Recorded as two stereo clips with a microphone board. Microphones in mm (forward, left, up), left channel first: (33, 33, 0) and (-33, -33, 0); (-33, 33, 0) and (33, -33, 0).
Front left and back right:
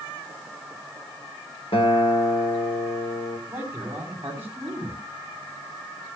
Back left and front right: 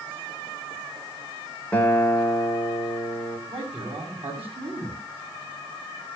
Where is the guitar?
60° left, 3 m.